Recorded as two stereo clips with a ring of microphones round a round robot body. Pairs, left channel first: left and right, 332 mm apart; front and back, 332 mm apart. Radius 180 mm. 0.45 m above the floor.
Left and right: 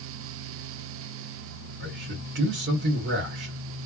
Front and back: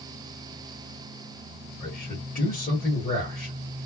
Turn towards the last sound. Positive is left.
turn(degrees=-55)